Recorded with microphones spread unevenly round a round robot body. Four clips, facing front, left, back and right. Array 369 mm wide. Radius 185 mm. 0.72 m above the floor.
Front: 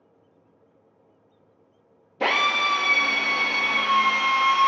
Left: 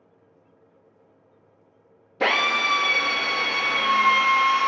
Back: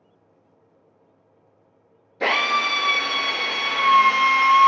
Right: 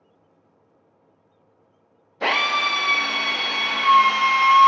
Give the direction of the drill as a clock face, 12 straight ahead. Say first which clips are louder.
Right 1 dB, back 1 dB; 10 o'clock.